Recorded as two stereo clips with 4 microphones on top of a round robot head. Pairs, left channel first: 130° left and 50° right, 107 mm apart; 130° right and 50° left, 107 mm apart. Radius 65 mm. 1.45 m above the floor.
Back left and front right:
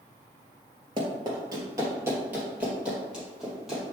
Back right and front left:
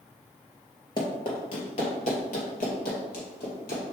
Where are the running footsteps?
90° right, 1.9 m; by 3.8 s 135° right, 3.5 m.